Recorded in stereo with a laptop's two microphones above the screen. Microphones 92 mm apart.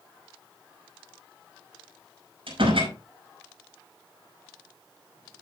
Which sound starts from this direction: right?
A door slam, at 2.5 s.